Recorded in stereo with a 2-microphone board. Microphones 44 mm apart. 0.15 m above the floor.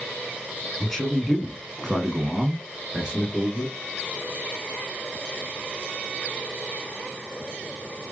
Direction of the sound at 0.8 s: 10° left (ahead or behind).